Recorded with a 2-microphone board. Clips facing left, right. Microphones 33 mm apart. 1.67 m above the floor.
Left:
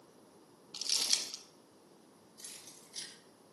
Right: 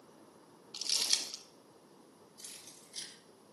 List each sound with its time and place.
0.7 s crumpling: centre (ahead or behind), 0.9 m
2.4 s keys jangling: 5° right (ahead or behind), 1.8 m